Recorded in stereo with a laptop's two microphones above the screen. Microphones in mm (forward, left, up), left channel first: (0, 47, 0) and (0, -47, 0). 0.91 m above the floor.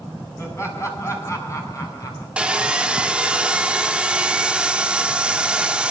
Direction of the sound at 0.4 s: 25° left (ahead or behind).